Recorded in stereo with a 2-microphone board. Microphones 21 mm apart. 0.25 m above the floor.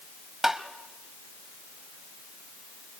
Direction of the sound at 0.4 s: 15° right (ahead or behind).